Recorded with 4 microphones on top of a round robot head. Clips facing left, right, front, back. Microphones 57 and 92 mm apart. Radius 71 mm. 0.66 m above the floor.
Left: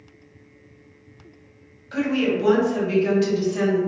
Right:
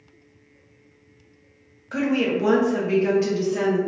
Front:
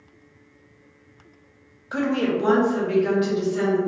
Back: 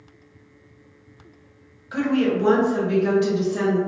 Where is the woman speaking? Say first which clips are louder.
Even, back 2 dB; 25° right, 0.7 m; by 3.8 s 155° right, 0.9 m.